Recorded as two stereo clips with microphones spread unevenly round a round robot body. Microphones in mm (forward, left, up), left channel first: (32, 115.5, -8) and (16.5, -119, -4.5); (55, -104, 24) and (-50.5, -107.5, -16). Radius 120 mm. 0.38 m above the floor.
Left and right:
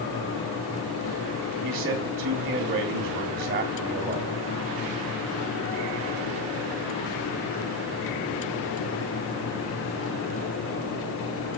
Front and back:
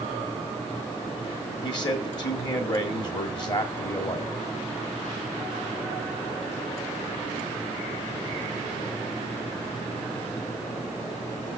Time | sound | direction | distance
1.6 | a man speaking | 45° right | 1.6 m